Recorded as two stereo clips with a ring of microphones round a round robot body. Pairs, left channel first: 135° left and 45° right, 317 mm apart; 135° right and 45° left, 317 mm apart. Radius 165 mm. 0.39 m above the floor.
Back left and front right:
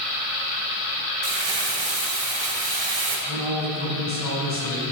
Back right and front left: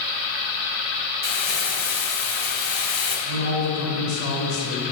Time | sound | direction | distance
1.2 | crumpling | 80° right | 2 m
3.3 | a man speaking | 100° right | 2.5 m